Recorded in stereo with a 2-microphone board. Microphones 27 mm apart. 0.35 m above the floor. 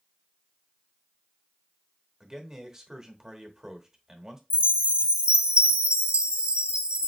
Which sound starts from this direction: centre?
A man speaking, at 2.2 s.